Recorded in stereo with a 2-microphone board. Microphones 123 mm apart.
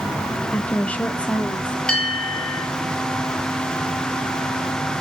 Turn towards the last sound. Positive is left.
turn(degrees=10)  # may be behind; listen again after turning